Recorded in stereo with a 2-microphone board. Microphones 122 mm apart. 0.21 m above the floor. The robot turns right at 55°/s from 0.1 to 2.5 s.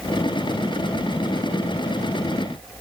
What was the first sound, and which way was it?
Only background noise.